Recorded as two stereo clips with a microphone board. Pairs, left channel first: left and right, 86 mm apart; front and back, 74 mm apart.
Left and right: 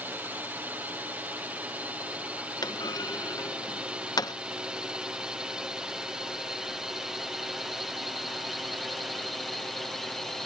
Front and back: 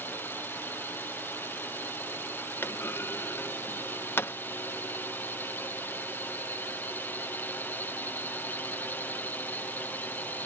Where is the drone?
35° right; by 10.5 s 10° left.